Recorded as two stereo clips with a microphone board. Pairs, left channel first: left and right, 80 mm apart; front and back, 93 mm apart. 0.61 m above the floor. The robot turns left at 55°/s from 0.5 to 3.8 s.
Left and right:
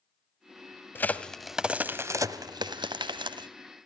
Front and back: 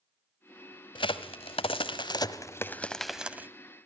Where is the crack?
25° left, 1.0 m; by 3.5 s 110° right, 1.0 m.